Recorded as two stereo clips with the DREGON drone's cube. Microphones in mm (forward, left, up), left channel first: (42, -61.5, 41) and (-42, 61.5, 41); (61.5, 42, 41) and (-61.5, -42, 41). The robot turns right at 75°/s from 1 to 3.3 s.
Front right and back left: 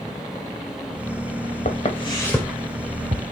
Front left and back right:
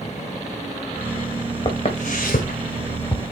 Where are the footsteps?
30° right, 3 m; by 3.2 s 105° left, 1.6 m.